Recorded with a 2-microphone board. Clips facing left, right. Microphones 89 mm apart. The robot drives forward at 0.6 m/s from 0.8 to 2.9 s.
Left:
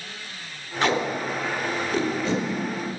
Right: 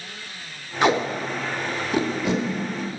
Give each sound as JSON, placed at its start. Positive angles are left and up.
{"t": 0.8, "sound": "tape being pulled", "side_deg": -15, "distance_m": 0.8}